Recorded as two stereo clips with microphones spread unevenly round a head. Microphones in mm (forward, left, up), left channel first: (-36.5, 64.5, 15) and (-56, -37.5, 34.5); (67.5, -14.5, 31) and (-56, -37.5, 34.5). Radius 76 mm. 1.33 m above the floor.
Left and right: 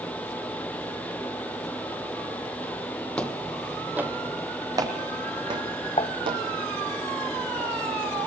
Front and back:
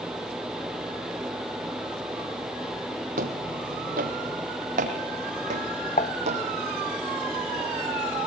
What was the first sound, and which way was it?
Footsteps, 165° left.